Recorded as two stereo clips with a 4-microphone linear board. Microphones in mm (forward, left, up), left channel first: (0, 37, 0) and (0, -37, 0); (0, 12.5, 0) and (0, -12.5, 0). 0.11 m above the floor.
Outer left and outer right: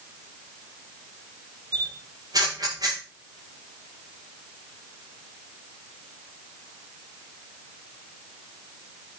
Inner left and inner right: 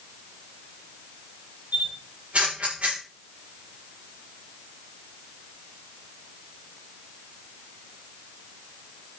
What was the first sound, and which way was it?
A camera shutter, 60° right (ahead or behind).